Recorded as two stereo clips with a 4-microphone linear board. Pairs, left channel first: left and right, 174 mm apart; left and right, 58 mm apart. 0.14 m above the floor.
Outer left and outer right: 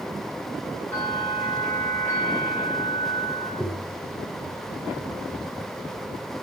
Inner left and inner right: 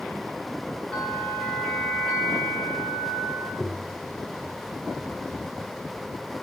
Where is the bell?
10° left (ahead or behind), 9 m.